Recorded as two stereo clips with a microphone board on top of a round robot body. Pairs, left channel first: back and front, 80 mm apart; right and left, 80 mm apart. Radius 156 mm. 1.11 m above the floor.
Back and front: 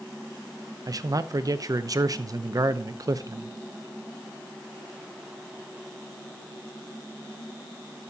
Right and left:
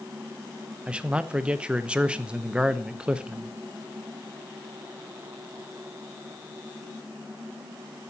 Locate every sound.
0.9 s a man speaking: 15° left, 0.8 m